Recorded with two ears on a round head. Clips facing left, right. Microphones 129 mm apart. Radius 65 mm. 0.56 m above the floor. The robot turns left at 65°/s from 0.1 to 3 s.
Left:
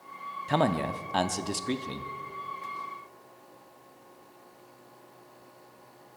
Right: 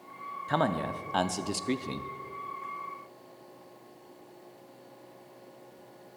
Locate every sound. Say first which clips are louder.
0.5 s a man speaking: left 2 dB; 20° left (ahead or behind), 0.6 m; by 2.1 s 15° right (ahead or behind), 0.6 m